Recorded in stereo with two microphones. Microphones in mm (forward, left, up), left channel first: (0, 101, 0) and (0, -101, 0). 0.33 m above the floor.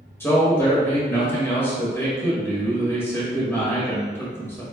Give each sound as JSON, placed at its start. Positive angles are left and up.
{"t": 0.2, "sound": "a man speaking", "side_deg": 10, "distance_m": 1.4}